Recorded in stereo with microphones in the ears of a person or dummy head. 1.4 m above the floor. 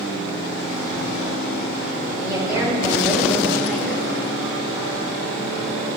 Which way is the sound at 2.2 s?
25° right (ahead or behind).